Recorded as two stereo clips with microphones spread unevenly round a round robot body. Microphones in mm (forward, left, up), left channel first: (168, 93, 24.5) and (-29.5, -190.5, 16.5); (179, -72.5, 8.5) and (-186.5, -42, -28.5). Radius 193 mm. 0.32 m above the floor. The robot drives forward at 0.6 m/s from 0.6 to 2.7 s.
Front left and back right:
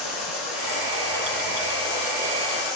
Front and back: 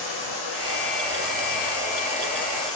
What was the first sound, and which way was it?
Running water, 55° left.